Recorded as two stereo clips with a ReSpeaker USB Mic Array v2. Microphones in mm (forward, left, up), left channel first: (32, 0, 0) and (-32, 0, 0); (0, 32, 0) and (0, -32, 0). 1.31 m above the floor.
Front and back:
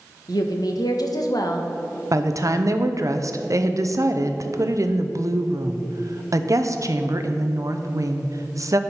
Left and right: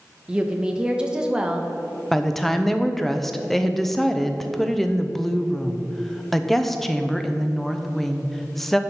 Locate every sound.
0.3 s a woman speaking: 10° right, 1.0 m
2.1 s a woman speaking: 175° left, 0.6 m